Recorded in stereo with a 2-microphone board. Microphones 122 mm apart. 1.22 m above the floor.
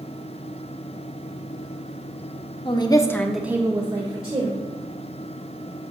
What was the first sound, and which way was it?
A woman speaking, 40° left (ahead or behind).